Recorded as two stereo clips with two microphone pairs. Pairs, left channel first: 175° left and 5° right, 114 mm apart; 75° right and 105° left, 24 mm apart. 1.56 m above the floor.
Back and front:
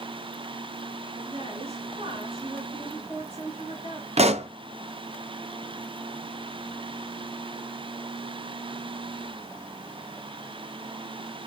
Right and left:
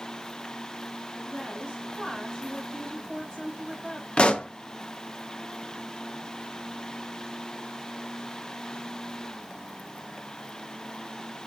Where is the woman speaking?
20° right, 7 m.